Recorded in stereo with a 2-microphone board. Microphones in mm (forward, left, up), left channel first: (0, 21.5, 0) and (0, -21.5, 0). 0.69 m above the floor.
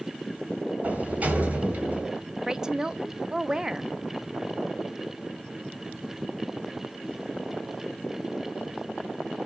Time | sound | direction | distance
0.8 | a sliding door | 35° right (ahead or behind) | 1.9 m
2.5 | a woman speaking | 15° right (ahead or behind) | 0.6 m